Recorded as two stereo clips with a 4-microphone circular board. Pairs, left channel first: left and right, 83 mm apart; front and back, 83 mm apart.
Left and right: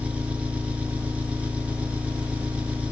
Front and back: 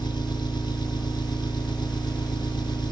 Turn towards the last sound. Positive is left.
turn(degrees=-15)